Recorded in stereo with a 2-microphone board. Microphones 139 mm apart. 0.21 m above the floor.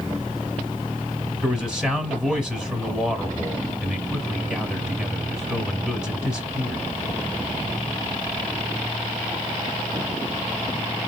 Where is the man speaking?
5° right (ahead or behind), 1.3 m.